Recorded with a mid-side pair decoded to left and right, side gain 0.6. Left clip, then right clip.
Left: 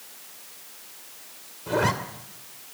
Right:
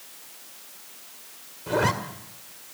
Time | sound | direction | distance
1.7 | a zipper | 5° right | 2.5 m